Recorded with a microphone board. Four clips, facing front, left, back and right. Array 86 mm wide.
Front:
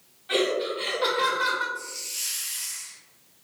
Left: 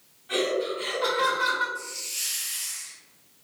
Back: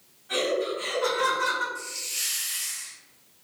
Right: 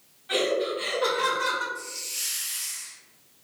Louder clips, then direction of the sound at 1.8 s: Left 1 dB, even; straight behind.